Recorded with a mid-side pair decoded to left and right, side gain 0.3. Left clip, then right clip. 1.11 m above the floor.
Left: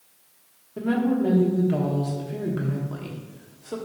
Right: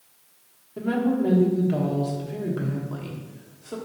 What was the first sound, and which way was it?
A woman speaking, 15° left.